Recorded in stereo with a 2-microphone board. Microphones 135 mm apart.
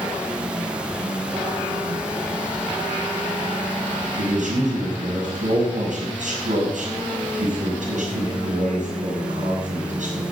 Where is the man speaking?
65° right (ahead or behind), 6 m.